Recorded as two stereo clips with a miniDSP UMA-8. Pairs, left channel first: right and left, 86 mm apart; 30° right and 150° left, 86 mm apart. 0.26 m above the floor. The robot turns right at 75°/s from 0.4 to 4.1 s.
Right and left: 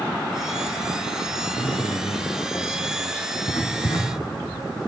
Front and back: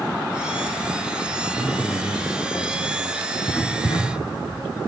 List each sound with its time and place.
1.6 s a man speaking: 150° right, 3 m; by 3.2 s 20° right, 3 m
3.4 s writing: 105° right, 4 m; by 4.7 s 50° right, 4 m